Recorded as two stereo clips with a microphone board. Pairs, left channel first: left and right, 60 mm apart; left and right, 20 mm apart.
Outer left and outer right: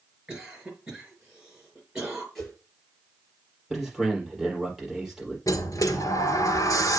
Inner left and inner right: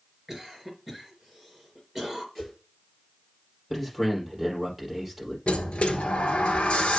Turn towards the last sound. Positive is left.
turn(degrees=70)  # may be behind; listen again after turning